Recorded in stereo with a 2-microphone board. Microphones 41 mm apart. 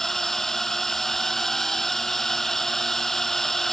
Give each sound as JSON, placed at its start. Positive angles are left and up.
{"t": 0.0, "sound": "a drone", "side_deg": 10}